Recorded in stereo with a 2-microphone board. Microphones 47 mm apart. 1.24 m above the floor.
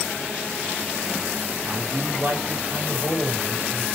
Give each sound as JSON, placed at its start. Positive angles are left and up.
{"t": 1.7, "sound": "a man speaking", "side_deg": -50, "distance_m": 5.5}